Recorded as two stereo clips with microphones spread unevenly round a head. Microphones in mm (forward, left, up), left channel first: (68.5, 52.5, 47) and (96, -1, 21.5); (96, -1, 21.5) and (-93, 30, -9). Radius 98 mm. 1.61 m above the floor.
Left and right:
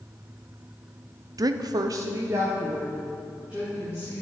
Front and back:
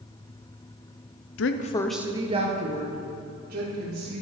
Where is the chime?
No chime in this recording.